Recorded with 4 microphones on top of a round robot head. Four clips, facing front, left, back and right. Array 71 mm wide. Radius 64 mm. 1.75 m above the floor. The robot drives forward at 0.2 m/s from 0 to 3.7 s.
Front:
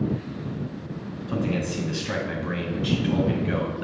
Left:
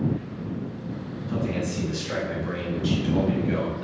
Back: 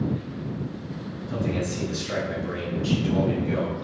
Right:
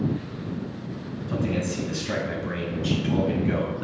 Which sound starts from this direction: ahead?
A man speaking, at 1.3 s.